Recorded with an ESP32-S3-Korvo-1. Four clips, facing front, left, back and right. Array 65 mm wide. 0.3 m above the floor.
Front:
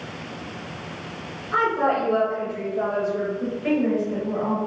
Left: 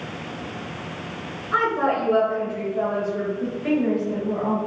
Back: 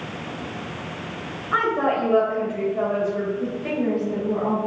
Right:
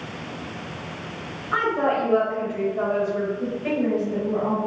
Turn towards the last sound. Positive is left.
turn(degrees=-10)